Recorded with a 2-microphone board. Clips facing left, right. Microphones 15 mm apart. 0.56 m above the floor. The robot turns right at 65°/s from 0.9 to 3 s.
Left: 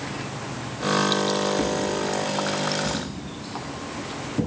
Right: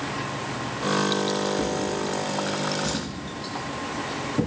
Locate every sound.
1.6 s a drawer: 65° left (ahead or behind), 3 m; by 4.5 s 30° right (ahead or behind), 3 m